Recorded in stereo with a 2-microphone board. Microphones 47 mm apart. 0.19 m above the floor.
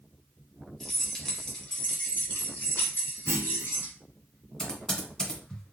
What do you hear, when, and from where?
0.8 s keys jangling: 5° left (ahead or behind), 1.5 m; by 3.9 s 50° left (ahead or behind), 1.5 m
3.3 s a clunk: 70° right (ahead or behind), 0.5 m
4.6 s typing on a keyboard: 10° left (ahead or behind), 1.8 m